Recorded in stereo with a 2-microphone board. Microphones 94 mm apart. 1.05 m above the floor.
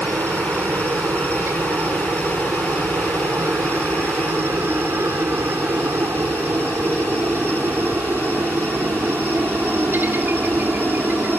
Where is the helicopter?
25° right (ahead or behind); by 11.4 s 20° right (ahead or behind).